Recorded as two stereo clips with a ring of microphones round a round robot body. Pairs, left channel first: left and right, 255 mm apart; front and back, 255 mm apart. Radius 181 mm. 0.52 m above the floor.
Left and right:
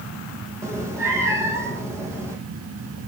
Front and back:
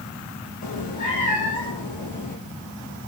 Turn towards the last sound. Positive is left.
turn(degrees=-10)